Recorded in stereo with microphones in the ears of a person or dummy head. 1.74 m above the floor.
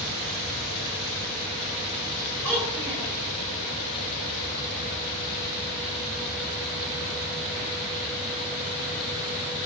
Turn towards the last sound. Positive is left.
turn(degrees=-10)  # may be behind; listen again after turning